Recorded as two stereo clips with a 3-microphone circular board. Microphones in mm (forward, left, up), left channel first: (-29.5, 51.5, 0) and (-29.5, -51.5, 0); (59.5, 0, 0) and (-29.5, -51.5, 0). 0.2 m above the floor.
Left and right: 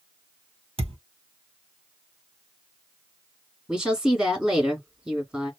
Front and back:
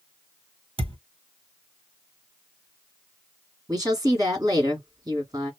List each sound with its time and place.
0.8 s a thud: 115° right, 1.1 m
3.7 s a woman speaking: 165° right, 1.3 m